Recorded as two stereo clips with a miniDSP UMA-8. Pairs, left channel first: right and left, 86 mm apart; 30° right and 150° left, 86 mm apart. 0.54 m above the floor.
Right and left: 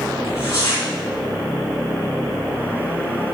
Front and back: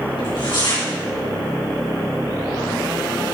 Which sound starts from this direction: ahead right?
Tearing paper, at 0.2 s.